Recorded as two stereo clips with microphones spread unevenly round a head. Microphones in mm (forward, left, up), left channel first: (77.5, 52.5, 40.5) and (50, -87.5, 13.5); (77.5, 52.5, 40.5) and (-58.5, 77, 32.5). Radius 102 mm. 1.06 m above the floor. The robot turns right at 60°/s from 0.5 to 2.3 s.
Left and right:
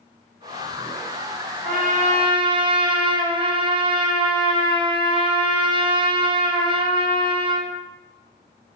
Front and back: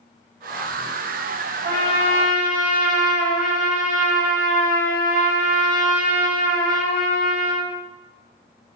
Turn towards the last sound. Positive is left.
turn(degrees=-50)